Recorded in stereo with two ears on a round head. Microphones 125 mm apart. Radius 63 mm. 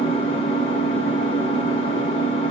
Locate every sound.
0.0 s an engine running: 45° left (ahead or behind), 1.8 m